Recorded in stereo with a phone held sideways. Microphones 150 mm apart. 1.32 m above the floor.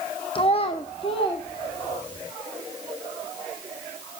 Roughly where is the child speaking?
Left.